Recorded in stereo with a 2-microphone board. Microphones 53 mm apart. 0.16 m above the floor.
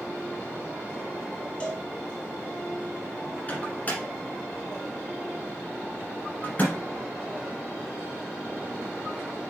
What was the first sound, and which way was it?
A cowbell, 20° left (ahead or behind).